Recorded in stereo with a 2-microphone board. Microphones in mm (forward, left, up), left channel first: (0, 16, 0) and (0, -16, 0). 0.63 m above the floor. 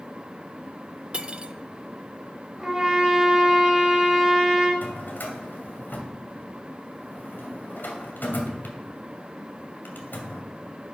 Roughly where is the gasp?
I don't hear a gasp.